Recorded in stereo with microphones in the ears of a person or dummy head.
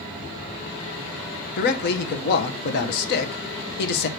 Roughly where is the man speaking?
Left.